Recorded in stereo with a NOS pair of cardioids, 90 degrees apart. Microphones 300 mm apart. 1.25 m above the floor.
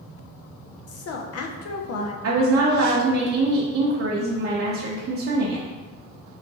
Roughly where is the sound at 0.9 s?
Ahead left.